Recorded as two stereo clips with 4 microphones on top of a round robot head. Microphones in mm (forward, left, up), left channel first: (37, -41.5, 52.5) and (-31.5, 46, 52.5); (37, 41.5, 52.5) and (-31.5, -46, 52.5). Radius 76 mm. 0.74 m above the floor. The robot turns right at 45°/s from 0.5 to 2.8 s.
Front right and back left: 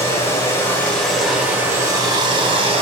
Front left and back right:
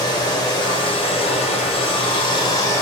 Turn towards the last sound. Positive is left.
turn(degrees=115)